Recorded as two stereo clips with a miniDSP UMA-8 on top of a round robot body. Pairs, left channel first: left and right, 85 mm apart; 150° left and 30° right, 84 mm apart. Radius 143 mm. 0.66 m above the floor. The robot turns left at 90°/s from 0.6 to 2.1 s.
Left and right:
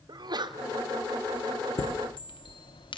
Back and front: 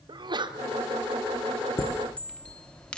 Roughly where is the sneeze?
Ahead right.